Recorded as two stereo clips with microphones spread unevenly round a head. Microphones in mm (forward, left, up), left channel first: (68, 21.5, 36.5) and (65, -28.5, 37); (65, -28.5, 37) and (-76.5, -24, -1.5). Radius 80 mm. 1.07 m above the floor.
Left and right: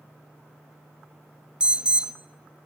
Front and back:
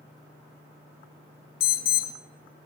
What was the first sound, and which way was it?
An alarm, 20° right.